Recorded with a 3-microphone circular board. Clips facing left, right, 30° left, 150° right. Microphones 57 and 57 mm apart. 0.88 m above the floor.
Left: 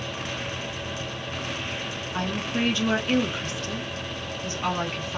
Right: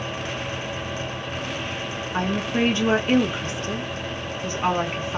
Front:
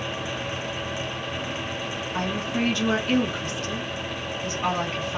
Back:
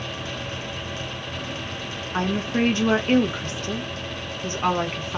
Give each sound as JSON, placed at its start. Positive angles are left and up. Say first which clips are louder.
{"t": 2.1, "sound": "a woman speaking", "louder": "right 4 dB, back 4 dB", "azimuth_deg": -125, "distance_m": 0.9}